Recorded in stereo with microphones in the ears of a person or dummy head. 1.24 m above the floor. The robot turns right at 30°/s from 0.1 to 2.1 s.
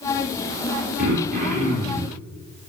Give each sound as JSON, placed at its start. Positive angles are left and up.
{"t": 1.0, "sound": "throat clearing", "azimuth_deg": -55, "distance_m": 4.0}